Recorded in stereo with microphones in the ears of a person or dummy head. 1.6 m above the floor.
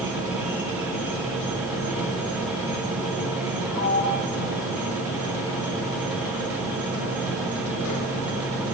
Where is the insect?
25° left (ahead or behind), 7 m.